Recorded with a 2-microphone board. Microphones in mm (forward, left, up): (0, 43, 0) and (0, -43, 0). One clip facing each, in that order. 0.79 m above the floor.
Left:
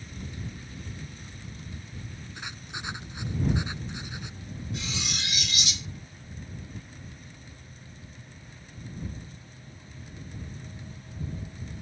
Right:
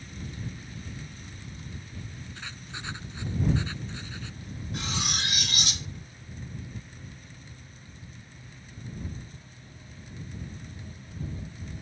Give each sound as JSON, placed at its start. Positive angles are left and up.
{"t": 2.4, "sound": "writing", "side_deg": 15}
{"t": 4.7, "sound": "cutlery clinking", "side_deg": -50}